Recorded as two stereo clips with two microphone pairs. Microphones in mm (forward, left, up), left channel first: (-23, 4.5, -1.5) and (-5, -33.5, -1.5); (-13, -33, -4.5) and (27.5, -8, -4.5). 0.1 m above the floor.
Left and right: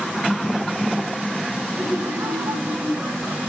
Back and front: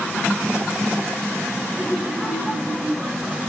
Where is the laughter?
55° right, 6.5 m; by 3.4 s 65° right, 6.5 m.